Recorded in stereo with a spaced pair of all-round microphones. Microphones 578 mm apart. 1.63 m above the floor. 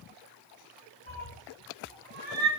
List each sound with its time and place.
1.1 s a cat meowing: 20° right (ahead or behind), 3 m; by 2.5 s 50° right (ahead or behind), 3.5 m